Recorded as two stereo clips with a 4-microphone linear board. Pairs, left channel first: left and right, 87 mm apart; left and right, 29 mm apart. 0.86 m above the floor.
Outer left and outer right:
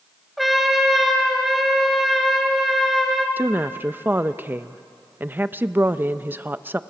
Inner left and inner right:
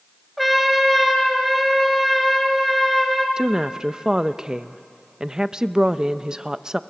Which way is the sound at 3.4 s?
25° right (ahead or behind).